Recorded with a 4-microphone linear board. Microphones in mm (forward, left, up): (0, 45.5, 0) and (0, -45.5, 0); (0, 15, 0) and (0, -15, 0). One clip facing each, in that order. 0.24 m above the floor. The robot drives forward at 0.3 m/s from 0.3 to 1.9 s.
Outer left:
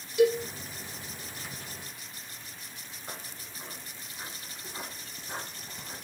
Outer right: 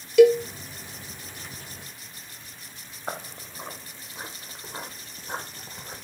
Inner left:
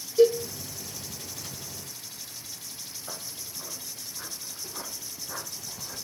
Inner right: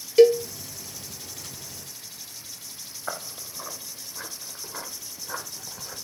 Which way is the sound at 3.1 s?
75° right (ahead or behind).